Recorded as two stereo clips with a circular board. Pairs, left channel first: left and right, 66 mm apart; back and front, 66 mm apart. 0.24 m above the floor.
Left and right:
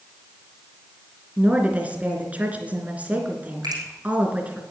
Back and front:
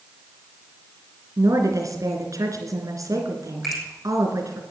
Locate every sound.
1.4 s a woman speaking: 25° right, 3 m
3.6 s a finger snap: 90° right, 7 m